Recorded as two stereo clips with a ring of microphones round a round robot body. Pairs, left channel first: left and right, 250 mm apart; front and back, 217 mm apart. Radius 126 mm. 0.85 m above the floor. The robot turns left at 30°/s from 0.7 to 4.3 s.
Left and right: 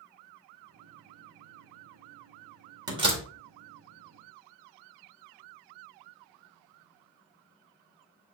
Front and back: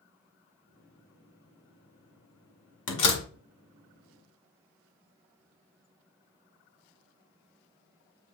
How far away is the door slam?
About 2.0 m.